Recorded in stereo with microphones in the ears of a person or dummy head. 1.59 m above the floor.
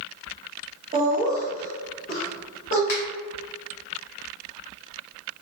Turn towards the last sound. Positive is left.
turn(degrees=50)  # may be behind; listen again after turning